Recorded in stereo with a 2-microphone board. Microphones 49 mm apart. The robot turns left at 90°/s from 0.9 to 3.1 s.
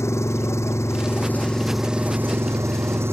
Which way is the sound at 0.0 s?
75° left.